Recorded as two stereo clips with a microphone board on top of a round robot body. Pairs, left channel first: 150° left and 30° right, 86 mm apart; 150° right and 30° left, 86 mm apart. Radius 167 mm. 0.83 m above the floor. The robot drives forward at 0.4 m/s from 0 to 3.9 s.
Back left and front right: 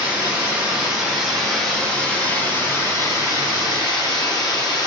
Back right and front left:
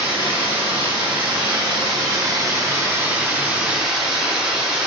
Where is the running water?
45° left, 1.6 m; by 4.9 s 110° left, 1.2 m.